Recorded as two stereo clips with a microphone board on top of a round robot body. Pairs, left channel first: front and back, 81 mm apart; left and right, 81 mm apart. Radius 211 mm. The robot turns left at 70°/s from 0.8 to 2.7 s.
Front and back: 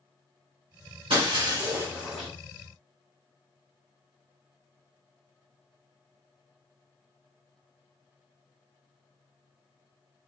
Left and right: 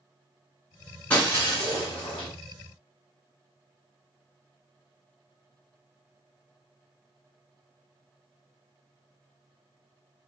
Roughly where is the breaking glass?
Behind.